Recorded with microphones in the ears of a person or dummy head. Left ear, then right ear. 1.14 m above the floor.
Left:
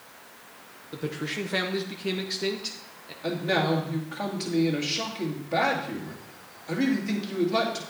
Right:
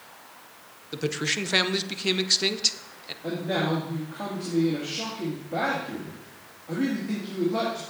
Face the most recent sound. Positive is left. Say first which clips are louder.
# left 2 dB
turn(degrees=40)  # may be behind; listen again after turning